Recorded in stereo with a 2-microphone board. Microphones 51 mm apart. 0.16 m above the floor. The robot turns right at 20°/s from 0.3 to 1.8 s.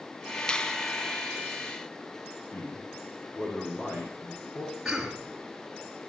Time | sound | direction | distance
0.5 | a finger snap | 15° left (ahead or behind) | 0.8 m
2.5 | a man speaking | 40° left (ahead or behind) | 7 m
4.8 | a cough | 5° right (ahead or behind) | 2.5 m